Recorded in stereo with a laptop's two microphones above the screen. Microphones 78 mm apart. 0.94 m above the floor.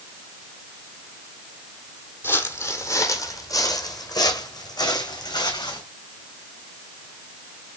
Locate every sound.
2.2 s footsteps: 30° left (ahead or behind), 1.5 m; by 5.8 s 65° left (ahead or behind), 3 m